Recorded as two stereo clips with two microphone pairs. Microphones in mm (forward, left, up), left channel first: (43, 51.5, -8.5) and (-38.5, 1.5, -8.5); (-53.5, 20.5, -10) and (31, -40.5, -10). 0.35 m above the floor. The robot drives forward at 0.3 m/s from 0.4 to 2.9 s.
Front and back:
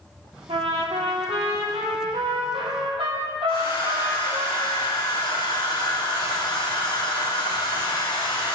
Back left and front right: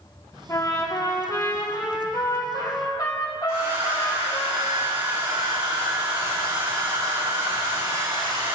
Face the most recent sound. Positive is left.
turn(degrees=5)